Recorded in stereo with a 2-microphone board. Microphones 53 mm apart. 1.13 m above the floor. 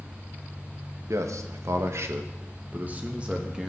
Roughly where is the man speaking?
Right.